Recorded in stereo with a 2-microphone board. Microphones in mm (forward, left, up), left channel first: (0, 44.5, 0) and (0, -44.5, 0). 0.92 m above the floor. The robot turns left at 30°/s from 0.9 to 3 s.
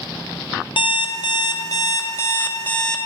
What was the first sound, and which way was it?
An alarm clock, 70° left.